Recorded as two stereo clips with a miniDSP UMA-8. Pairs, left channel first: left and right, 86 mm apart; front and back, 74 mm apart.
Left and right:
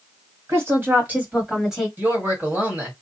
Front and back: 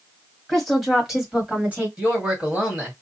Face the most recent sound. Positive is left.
turn(degrees=-120)